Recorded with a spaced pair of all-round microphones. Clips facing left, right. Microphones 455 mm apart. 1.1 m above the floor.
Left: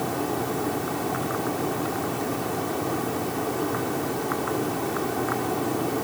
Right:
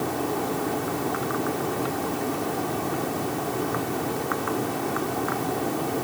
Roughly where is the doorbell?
No doorbell in this recording.